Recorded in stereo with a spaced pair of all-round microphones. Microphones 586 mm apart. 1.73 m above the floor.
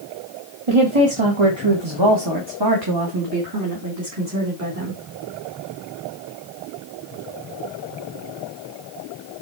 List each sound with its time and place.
0.7 s a woman speaking: 60° right (ahead or behind), 2 m; by 5.0 s 25° right (ahead or behind), 4 m